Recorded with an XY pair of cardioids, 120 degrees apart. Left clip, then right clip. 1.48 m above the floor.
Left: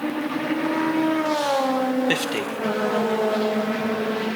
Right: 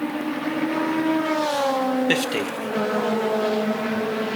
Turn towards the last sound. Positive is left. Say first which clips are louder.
# right 1 dB
turn(degrees=-10)